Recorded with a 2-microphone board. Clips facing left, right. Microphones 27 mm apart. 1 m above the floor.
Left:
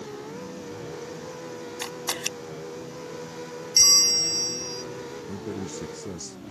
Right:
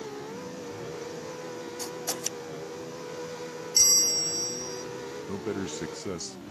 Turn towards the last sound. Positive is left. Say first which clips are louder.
# right 3 dB
turn(degrees=-30)  # may be behind; listen again after turning